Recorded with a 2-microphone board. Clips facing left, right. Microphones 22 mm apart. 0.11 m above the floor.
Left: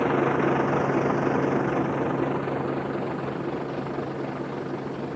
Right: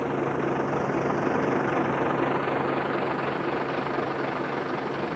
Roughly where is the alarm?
No alarm in this recording.